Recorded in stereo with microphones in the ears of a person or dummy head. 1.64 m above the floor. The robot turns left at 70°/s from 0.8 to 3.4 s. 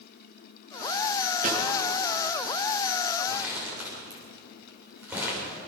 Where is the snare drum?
50° right (ahead or behind), 7 m; by 1.6 s 60° right (ahead or behind), 7 m.